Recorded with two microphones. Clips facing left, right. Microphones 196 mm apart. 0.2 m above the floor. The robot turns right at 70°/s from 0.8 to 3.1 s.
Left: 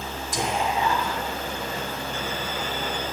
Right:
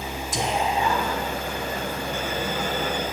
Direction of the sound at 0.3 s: 25° right (ahead or behind).